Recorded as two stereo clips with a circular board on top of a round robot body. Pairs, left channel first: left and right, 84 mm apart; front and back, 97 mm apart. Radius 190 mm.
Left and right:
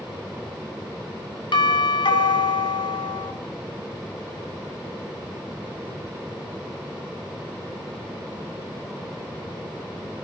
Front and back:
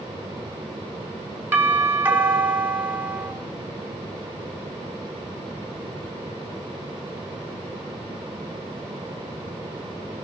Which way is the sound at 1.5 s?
110° left.